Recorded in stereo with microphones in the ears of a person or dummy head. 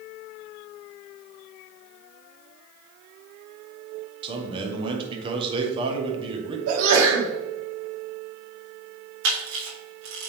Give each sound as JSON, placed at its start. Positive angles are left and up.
{"t": 4.2, "sound": "a man speaking", "side_deg": -30, "distance_m": 1.3}
{"t": 6.7, "sound": "a sneeze", "side_deg": -75, "distance_m": 1.9}
{"t": 9.2, "sound": "a camera shutter", "side_deg": -70, "distance_m": 3.0}